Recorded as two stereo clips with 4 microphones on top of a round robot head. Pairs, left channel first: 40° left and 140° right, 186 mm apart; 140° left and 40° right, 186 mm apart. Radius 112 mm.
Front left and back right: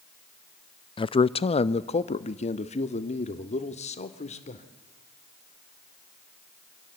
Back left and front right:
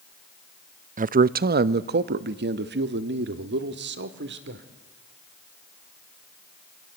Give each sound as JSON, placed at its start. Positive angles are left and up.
{"t": 1.0, "sound": "a man speaking", "azimuth_deg": -15, "distance_m": 0.6}